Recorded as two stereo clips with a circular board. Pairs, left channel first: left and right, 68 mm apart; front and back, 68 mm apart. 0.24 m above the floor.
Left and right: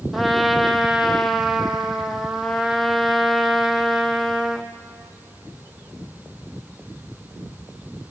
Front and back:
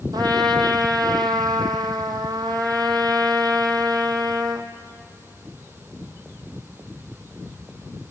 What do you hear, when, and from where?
0.1 s a trumpet: 175° right, 1.3 m